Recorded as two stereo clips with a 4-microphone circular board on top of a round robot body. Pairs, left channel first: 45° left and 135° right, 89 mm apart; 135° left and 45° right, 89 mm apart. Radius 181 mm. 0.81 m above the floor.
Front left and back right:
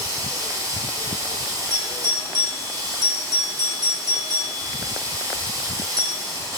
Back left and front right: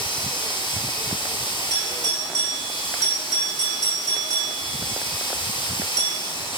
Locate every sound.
0.0 s running water: 175° left, 1.8 m
1.7 s a doorbell: 100° right, 4.5 m